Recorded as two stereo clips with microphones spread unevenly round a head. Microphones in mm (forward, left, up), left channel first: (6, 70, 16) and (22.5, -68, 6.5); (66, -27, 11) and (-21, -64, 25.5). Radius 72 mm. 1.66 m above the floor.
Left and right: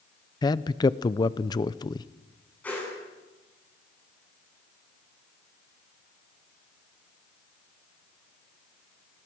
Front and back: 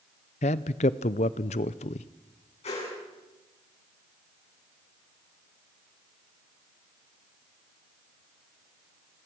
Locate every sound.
0.4 s a man speaking: 40° left, 0.7 m
2.6 s a whoosh: 20° left, 9.5 m